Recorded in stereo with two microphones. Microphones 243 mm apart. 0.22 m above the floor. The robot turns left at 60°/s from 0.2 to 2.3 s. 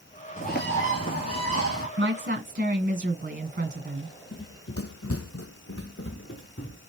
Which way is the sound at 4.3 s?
45° left (ahead or behind).